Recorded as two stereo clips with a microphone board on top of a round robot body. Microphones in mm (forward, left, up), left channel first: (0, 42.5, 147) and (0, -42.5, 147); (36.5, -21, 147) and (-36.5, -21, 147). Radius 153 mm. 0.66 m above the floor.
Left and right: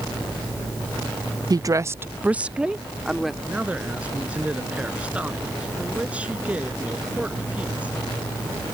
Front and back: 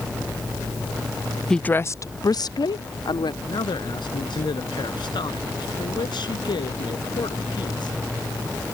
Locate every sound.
1.5 s a woman speaking: 80° right; by 3.3 s straight ahead
3.4 s a man speaking: 15° right